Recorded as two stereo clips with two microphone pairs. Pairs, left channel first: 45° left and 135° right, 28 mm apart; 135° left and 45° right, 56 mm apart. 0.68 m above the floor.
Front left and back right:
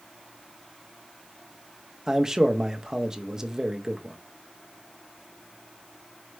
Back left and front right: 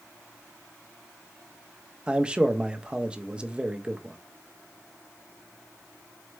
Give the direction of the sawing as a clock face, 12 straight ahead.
No sawing in this recording.